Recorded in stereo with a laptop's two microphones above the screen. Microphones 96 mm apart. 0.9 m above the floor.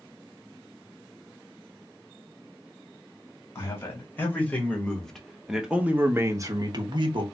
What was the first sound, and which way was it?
A man speaking, 25° left (ahead or behind).